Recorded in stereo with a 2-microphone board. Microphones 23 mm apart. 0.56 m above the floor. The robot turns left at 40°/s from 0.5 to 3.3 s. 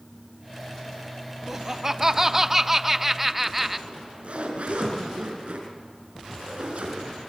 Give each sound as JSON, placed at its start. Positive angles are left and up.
{"t": 1.5, "sound": "laughter", "side_deg": -20, "distance_m": 0.7}
{"t": 3.9, "sound": "a zipper", "side_deg": -65, "distance_m": 5.0}